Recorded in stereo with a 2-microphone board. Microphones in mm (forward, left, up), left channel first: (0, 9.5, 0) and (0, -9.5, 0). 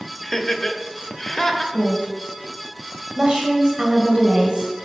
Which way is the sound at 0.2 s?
20° left (ahead or behind).